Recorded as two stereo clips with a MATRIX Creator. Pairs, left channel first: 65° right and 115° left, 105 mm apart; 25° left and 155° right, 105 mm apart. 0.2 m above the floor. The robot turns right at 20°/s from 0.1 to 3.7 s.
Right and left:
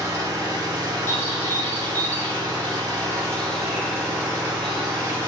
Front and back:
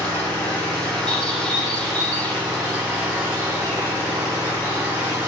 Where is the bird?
45° right, 0.6 m; by 5.2 s 5° left, 0.6 m.